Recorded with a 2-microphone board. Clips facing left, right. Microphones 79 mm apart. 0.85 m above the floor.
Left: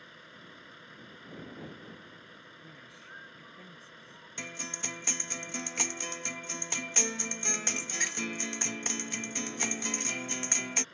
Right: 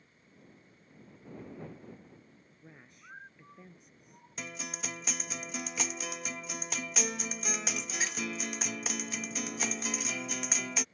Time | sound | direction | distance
0.0 | a vehicle | 85° left | ?
2.6 | a woman speaking | 5° right (ahead or behind) | ?
4.4 | a guitar | centre (ahead or behind) | ?